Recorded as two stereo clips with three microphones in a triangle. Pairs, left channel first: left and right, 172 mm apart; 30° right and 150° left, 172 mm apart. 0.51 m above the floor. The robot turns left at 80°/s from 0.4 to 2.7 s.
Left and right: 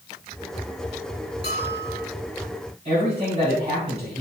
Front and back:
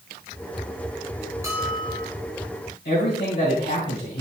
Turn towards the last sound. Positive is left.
turn(degrees=-40)